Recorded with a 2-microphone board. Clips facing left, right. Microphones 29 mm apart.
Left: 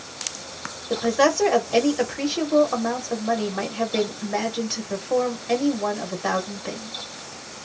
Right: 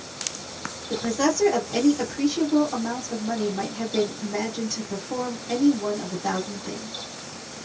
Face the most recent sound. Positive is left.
turn(degrees=45)  # may be behind; listen again after turning